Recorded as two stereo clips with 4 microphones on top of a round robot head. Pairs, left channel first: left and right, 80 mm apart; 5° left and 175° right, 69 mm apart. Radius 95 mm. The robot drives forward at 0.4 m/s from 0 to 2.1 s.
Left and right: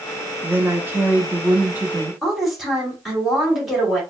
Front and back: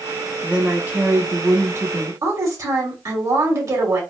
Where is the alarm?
No alarm in this recording.